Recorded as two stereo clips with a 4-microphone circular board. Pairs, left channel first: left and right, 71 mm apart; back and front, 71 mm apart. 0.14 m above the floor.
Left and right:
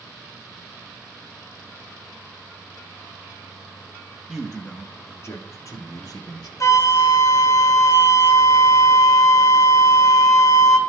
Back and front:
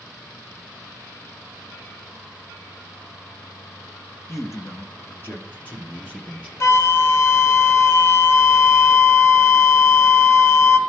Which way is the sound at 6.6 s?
130° left.